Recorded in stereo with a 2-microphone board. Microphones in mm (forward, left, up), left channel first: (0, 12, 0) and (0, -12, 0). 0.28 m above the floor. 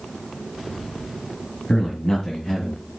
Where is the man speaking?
30° left (ahead or behind), 2.0 m; by 2.9 s 25° left (ahead or behind), 2.5 m.